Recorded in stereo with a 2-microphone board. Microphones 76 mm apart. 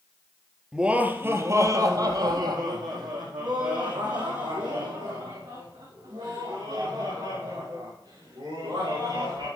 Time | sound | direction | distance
0.7 | laughter | 10° right (ahead or behind) | 2 m